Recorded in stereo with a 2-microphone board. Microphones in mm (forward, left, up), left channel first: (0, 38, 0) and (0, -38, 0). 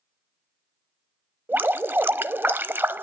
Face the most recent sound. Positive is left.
turn(degrees=-25)  # may be behind; listen again after turning